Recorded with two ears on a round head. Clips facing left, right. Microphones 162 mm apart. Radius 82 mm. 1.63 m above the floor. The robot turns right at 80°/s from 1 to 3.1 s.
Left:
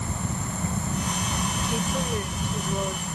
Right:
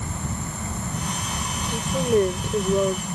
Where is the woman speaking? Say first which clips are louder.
Right 10 dB; 170° left; by 3.0 s 80° right.